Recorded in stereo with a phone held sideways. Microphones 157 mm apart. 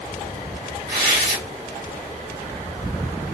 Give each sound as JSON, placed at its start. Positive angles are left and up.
{"t": 0.9, "sound": "tearing paper", "side_deg": -70, "distance_m": 1.7}